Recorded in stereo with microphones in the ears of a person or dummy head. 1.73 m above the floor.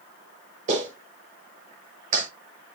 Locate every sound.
0.7 s a clap: 45° right (ahead or behind), 6 m